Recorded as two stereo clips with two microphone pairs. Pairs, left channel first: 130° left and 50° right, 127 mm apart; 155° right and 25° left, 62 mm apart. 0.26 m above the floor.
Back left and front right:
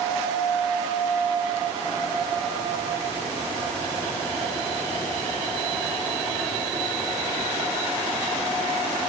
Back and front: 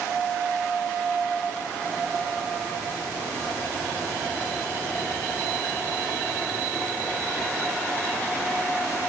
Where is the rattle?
No rattle in this recording.